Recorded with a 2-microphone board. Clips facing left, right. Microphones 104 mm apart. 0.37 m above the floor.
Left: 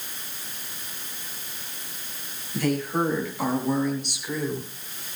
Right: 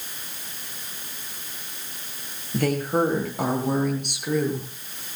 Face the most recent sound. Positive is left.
turn(degrees=-60)  # may be behind; listen again after turning